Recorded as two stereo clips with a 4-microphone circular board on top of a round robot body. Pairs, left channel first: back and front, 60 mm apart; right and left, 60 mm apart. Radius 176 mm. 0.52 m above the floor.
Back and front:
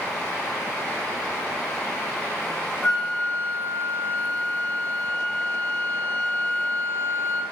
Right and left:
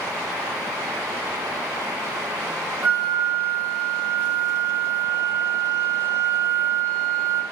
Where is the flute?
130° left, 1.0 m.